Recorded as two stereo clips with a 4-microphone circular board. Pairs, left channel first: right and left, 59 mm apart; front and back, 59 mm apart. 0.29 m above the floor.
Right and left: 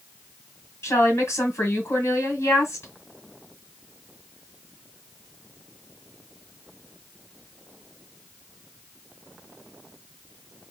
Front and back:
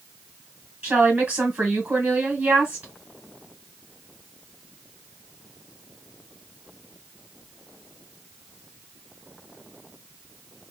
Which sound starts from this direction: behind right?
A woman speaking, at 0.8 s.